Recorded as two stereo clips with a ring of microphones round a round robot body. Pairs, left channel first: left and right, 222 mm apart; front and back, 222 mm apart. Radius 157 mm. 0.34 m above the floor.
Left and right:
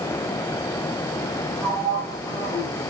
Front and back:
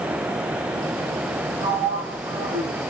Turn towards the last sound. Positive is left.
turn(degrees=155)